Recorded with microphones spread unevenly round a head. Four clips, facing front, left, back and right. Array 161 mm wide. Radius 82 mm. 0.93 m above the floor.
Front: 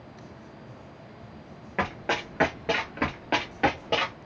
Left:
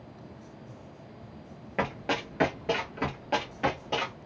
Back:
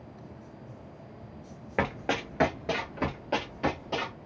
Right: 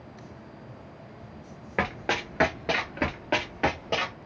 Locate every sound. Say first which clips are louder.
1.8 s running footsteps: right 1 dB, front 1 dB; 140° right, 1.0 m; by 4.2 s 30° right, 1.3 m